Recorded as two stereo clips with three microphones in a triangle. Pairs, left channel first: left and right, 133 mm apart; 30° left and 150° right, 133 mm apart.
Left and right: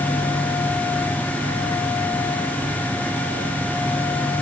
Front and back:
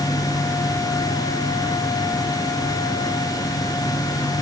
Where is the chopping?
No chopping in this recording.